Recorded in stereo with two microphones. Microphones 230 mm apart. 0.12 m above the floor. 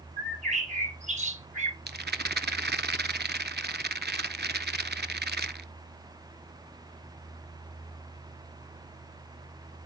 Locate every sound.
0.2 s a bird: 30° right (ahead or behind), 1.8 m
1.9 s a rattle: 45° right (ahead or behind), 0.7 m